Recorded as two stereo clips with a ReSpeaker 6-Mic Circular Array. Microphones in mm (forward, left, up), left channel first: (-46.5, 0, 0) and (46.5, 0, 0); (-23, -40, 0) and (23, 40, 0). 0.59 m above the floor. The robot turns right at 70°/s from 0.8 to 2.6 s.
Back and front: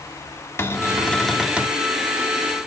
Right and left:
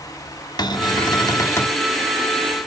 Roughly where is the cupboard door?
Behind right.